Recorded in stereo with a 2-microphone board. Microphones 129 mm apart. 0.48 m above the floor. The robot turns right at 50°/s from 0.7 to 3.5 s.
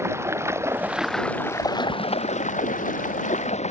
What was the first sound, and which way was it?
Running water, 20° right.